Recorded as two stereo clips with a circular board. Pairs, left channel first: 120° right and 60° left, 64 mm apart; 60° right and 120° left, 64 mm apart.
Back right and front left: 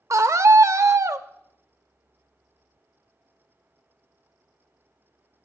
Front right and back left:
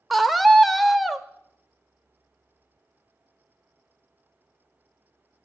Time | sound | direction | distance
0.1 | a scream | 30° left | 0.6 m